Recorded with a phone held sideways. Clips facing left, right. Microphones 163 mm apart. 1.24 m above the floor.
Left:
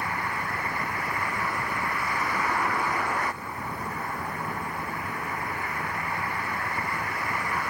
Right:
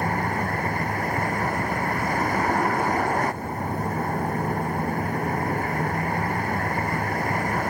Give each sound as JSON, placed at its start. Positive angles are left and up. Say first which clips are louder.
{"t": 0.0, "sound": "a vehicle", "louder": "right 7 dB", "side_deg": -45}